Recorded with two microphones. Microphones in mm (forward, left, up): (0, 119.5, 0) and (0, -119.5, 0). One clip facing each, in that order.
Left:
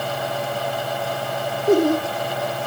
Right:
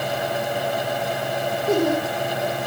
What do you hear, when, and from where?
1.7 s laughter: 35° left (ahead or behind), 6 m